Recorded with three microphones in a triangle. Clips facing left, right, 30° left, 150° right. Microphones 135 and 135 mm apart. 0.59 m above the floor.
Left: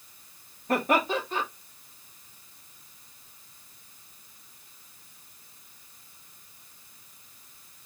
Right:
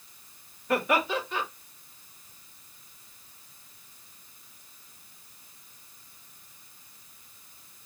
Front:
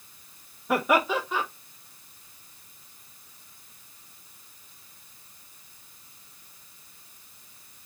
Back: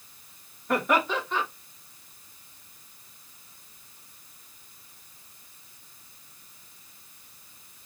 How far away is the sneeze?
No sneeze in this recording.